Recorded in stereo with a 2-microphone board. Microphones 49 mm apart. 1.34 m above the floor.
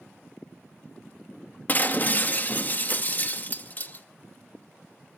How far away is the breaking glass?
About 0.8 m.